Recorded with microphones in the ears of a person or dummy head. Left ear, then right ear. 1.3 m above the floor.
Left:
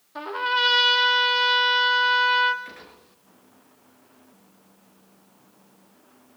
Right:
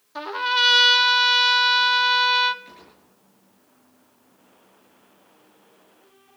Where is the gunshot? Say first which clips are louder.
Left 4 dB; 40° left (ahead or behind), 5.5 m.